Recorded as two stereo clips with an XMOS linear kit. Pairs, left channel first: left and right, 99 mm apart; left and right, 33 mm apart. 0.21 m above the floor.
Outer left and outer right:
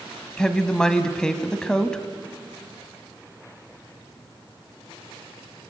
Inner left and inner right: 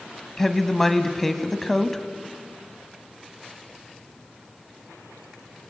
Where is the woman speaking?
10° left (ahead or behind), 1.2 m.